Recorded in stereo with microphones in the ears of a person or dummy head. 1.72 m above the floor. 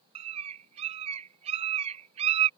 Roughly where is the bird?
Right.